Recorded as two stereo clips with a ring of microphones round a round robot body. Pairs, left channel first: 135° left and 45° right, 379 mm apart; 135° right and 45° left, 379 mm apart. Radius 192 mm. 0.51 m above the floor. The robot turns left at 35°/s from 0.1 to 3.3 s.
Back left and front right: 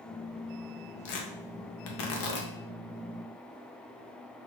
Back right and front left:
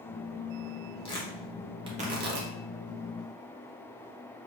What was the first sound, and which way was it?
Tearing paper, 150° left.